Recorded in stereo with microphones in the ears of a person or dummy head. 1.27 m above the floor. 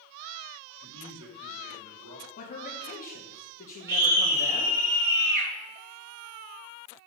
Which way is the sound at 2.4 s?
45° left (ahead or behind).